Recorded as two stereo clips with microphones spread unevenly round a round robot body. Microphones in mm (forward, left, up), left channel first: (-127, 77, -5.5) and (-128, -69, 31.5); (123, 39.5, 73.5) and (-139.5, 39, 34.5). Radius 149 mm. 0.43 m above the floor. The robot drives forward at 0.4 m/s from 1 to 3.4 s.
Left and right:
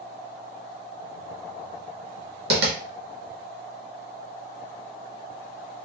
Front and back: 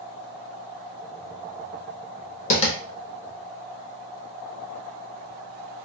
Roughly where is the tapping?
Ahead right.